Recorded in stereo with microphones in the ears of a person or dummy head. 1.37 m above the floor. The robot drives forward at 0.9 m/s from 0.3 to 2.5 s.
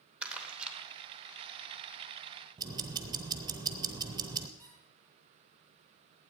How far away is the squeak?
About 3.5 m.